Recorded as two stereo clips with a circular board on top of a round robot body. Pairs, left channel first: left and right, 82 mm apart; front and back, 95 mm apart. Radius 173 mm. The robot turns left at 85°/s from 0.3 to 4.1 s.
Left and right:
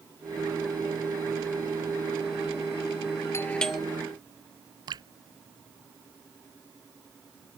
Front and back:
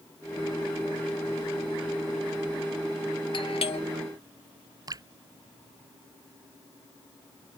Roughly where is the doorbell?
Ahead left.